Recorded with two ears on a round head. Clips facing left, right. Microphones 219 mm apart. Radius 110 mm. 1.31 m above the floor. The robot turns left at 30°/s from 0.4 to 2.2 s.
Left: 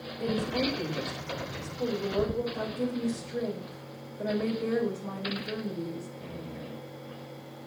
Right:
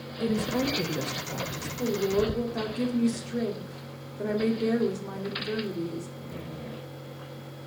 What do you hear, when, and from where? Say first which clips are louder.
0.2 s a woman speaking: right 2 dB; 25° right, 2.5 m; by 1.7 s 65° right, 2.5 m
1.8 s a woman speaking: right 4 dB; 30° right (ahead or behind), 3.5 m; by 6.1 s 45° right (ahead or behind), 3.5 m